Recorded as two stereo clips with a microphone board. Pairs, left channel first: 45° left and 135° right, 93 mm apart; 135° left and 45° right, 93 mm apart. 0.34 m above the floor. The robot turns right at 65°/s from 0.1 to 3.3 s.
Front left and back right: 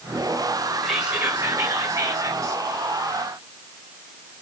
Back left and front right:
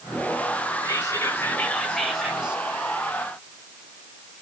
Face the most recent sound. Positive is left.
turn(degrees=-60)